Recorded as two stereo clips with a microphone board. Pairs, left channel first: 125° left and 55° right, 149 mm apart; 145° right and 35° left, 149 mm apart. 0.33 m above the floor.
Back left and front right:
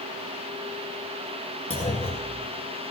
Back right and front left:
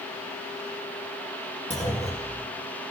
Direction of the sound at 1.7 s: 170° left.